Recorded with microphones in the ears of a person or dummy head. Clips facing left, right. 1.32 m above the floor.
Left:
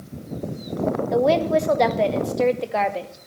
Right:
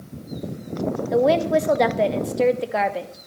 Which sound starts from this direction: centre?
A woman speaking, at 1.1 s.